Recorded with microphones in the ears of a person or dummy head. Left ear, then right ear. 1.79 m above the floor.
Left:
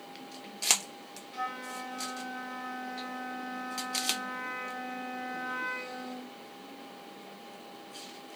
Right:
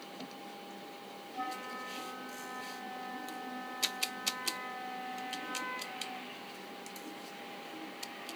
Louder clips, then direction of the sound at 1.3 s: Left 3 dB; 70° left (ahead or behind).